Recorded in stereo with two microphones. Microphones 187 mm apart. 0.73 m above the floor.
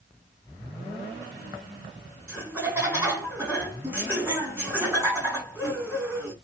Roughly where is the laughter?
Centre.